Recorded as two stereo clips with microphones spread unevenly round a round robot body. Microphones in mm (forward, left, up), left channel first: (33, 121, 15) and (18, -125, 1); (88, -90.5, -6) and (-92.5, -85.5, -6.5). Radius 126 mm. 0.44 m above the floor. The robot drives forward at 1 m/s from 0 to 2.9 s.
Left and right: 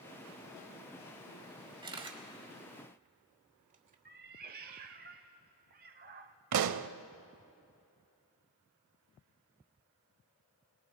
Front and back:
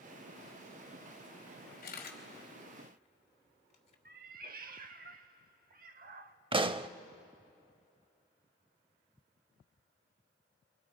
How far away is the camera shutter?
About 2.5 m.